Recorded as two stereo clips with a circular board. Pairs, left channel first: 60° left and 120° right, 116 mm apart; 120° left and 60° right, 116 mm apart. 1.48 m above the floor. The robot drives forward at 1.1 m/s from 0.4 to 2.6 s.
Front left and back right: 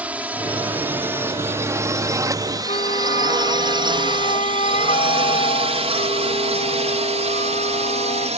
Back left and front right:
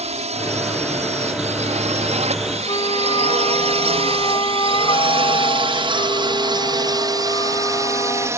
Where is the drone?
40° right; by 8.4 s 125° right.